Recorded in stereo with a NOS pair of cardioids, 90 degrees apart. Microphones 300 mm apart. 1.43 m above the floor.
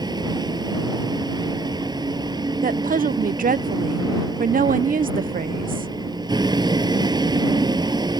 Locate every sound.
0.0 s a vehicle: 15° right
2.6 s a woman speaking: 30° right